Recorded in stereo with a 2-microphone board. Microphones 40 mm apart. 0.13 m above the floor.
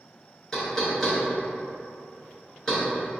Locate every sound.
0.5 s knocking: 10° left (ahead or behind), 1.3 m